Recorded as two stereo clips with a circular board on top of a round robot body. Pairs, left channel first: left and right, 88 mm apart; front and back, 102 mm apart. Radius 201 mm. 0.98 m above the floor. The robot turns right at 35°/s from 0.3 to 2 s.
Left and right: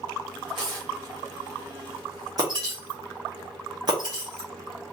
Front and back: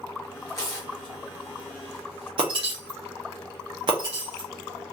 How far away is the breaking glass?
About 0.7 m.